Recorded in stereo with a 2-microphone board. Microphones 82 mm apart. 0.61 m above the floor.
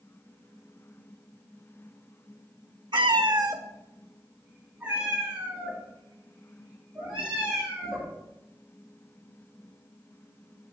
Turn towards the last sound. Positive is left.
turn(degrees=-10)  # may be behind; listen again after turning